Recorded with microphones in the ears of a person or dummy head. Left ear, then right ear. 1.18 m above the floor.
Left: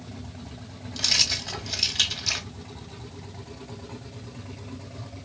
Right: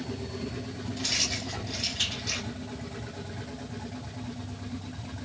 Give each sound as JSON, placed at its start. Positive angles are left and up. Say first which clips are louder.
{"t": 0.9, "sound": "keys jangling", "louder": "left 6 dB", "side_deg": 65, "distance_m": 0.9}